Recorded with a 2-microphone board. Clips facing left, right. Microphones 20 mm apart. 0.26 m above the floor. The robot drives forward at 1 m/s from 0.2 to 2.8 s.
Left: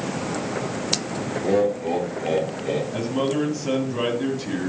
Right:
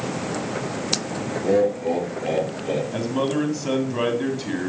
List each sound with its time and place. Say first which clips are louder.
1.4 s laughter: right 1 dB; 5° left (ahead or behind), 4 m; by 2.8 s centre (ahead or behind), 5 m
2.9 s a man speaking: right 1 dB; 15° right (ahead or behind), 2 m